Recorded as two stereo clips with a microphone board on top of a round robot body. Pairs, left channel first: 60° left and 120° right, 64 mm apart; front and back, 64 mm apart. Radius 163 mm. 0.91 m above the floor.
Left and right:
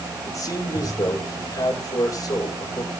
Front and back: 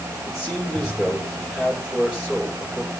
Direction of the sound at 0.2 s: 90° left.